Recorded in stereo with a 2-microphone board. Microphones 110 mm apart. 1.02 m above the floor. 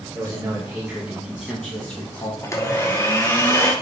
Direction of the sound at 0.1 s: 30° right (ahead or behind).